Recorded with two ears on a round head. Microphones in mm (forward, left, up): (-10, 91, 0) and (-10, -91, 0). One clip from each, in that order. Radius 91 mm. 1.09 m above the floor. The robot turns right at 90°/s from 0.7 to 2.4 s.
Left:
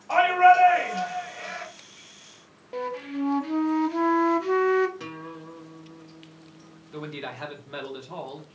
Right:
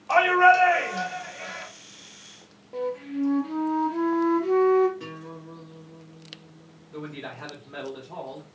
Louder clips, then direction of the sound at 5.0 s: Left 1 dB; 40° left (ahead or behind).